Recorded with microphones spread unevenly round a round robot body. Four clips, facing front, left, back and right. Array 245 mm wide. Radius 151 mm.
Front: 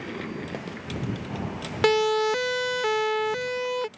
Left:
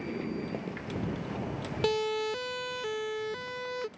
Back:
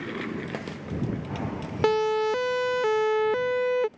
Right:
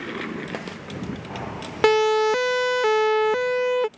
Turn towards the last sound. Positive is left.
turn(degrees=-135)